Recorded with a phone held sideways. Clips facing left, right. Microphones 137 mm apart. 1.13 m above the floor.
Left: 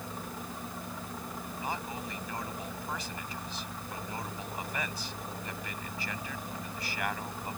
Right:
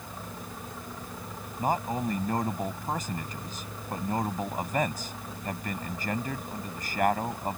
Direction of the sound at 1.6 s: 45° right (ahead or behind).